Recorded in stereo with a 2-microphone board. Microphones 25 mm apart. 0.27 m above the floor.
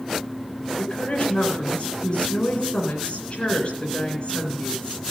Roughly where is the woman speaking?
Left.